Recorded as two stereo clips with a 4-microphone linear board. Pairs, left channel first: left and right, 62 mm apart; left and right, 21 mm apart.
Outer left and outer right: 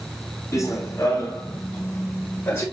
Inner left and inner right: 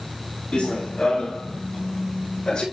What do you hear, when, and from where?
0.5 s running footsteps: 50° left (ahead or behind), 6.5 m; by 2.6 s 35° left (ahead or behind), 8.5 m